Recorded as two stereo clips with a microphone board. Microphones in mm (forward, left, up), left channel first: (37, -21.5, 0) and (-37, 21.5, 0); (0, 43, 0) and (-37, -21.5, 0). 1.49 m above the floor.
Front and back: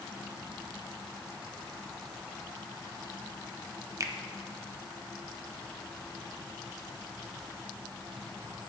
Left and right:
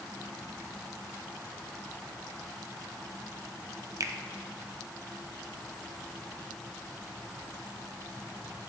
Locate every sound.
4.0 s a finger snap: 160° right, 0.6 m